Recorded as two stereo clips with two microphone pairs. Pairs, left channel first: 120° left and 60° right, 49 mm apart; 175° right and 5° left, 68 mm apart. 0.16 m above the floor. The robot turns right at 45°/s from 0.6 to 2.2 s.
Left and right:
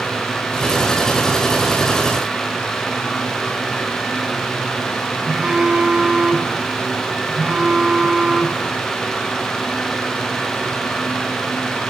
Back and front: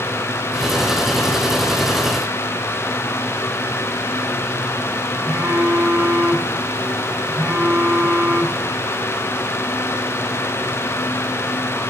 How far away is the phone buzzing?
About 0.8 m.